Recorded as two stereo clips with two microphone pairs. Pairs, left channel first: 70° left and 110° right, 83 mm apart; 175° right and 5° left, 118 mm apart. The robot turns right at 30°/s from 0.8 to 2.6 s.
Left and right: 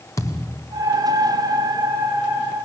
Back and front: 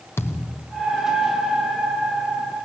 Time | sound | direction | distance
0.2 | a thud | 120° left | 1.7 m